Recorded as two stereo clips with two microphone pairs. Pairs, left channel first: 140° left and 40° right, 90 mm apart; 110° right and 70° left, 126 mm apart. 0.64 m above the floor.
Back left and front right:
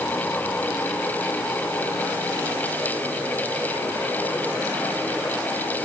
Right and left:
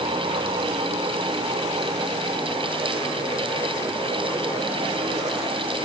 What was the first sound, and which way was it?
Only background noise.